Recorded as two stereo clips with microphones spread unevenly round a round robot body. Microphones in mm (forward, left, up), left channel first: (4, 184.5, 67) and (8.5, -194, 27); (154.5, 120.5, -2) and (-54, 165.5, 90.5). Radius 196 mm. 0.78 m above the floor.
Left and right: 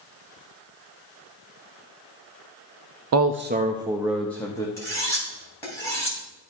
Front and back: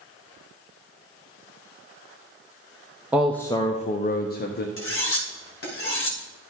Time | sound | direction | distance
3.1 | a man speaking | 85° right | 0.5 m
4.8 | cutlery clinking | 5° left | 3.5 m